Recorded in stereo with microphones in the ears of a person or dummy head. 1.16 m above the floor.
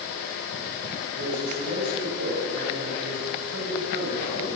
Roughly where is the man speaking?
Right.